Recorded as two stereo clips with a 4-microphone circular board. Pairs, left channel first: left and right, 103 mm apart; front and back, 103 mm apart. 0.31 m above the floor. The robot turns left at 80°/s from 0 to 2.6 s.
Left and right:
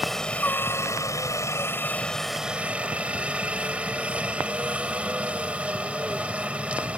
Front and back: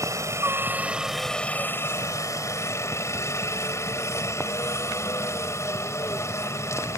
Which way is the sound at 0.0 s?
175° right.